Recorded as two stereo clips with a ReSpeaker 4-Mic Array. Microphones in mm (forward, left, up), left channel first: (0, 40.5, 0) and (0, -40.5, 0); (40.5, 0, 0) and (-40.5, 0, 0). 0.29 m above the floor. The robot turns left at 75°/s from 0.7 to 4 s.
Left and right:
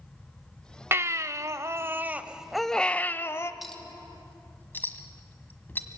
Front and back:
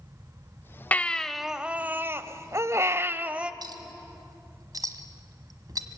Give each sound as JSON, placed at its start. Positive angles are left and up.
{"t": 0.9, "sound": "a baby crying", "azimuth_deg": -55, "distance_m": 0.7}
{"t": 3.6, "sound": "a clink", "azimuth_deg": 180, "distance_m": 1.6}